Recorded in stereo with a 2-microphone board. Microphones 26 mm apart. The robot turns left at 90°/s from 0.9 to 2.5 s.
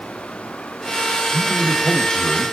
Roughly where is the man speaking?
Behind right.